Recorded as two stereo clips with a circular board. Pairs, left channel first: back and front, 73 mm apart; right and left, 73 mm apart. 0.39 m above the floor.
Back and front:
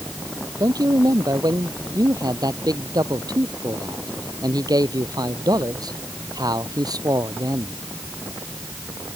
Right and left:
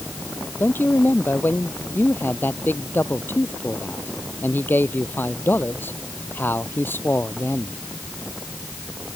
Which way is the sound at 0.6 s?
25° right.